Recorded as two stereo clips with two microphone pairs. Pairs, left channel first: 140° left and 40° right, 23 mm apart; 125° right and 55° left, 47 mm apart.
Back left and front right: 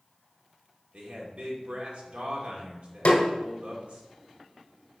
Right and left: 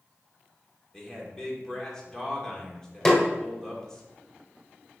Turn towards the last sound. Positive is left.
turn(degrees=165)